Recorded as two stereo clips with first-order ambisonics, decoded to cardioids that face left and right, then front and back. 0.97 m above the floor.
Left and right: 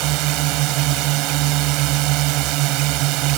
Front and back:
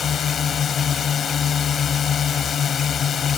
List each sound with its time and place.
0.0 s a drone: 65° right